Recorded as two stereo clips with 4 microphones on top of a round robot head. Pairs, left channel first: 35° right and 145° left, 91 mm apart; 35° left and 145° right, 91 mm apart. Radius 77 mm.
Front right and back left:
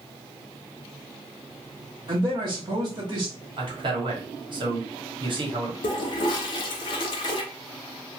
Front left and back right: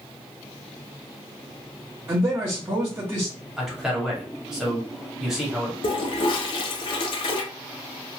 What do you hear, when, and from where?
2.1 s a man speaking: 155° left, 1.1 m
3.6 s a man speaking: 135° left, 1.3 m
5.8 s a toilet flushing: 5° left, 0.6 m